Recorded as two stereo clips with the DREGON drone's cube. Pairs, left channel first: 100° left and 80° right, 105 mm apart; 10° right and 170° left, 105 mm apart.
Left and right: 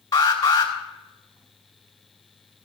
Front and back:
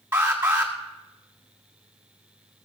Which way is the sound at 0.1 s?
120° left.